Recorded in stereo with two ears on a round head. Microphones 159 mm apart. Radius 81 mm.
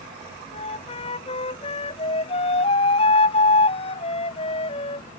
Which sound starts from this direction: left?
A flute, at 0.5 s.